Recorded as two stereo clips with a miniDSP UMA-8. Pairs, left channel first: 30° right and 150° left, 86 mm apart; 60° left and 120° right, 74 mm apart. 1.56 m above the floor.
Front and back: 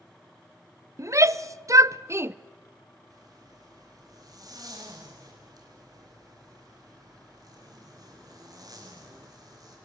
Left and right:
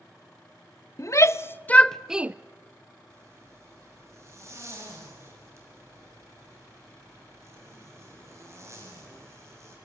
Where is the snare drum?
No snare drum in this recording.